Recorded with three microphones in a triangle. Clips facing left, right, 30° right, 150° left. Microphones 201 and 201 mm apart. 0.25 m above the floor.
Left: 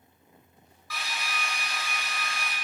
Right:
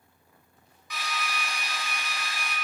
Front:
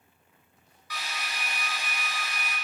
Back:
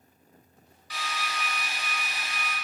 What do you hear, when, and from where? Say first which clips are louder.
0.9 s a drill: right 2 dB, back 3 dB; 160° right, 1.5 m